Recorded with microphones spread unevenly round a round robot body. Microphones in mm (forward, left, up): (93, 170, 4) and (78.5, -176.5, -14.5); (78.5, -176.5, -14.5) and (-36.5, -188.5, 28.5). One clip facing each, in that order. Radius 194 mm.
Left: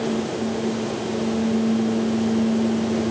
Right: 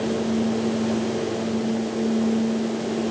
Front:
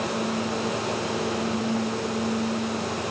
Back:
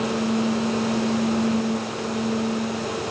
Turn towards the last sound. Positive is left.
No sound to turn to.